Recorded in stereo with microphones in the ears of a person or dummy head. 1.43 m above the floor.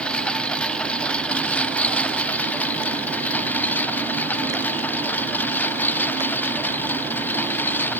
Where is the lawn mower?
5° left (ahead or behind); by 8.0 s 10° left (ahead or behind).